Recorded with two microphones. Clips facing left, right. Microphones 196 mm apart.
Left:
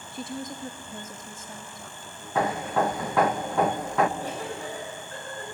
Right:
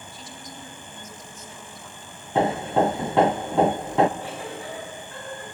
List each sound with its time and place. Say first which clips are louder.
0.1 s a woman speaking: left 11 dB; 55° left (ahead or behind), 1.7 m; by 3.4 s 40° left (ahead or behind), 4 m
2.4 s hammering: right 4 dB; 25° right (ahead or behind), 0.9 m
4.2 s a giggle: left 1 dB; 40° left (ahead or behind), 7.5 m